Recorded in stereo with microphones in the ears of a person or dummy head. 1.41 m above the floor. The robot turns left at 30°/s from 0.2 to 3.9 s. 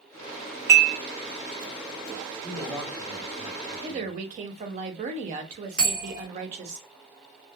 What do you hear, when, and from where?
0.7 s dishes clattering: 50° right (ahead or behind), 0.7 m; by 1.0 s 55° right (ahead or behind), 0.7 m
2.4 s a man speaking: 165° right, 0.9 m; by 4.2 s 150° left, 0.9 m
3.8 s a woman speaking: 35° right (ahead or behind), 0.6 m
5.8 s a bell: 45° right (ahead or behind), 1.4 m